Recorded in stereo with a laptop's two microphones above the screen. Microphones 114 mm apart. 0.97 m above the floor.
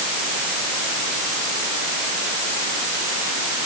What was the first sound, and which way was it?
Only background noise.